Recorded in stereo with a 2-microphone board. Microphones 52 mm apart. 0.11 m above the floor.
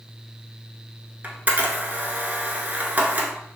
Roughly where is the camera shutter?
Right.